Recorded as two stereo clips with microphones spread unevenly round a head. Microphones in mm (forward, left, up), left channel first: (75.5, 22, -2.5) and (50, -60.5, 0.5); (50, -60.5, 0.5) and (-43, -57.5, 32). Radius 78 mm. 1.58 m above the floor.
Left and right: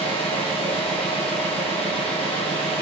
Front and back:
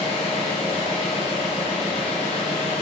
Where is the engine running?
65° left, 4.5 m.